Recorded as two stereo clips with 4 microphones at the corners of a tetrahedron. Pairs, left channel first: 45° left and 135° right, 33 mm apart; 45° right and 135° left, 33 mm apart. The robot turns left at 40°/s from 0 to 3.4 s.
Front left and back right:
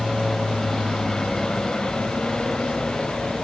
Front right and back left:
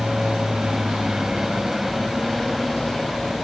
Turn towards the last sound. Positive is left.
turn(degrees=10)